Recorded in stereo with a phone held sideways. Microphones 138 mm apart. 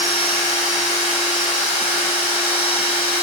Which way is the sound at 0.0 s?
55° left (ahead or behind).